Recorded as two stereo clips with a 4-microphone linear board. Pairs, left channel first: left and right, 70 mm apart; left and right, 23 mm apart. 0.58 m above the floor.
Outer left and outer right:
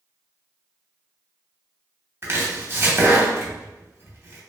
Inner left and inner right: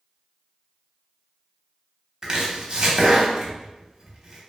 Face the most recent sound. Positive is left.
turn(degrees=-35)  # may be behind; listen again after turning